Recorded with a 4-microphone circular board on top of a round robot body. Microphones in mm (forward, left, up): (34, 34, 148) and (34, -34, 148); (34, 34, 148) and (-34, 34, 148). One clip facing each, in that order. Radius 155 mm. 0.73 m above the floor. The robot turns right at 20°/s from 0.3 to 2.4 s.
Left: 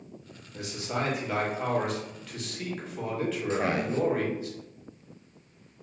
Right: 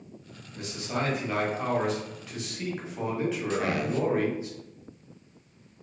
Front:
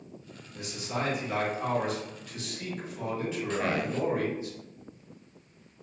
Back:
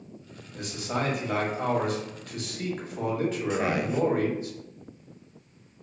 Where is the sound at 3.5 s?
115° left, 0.8 m.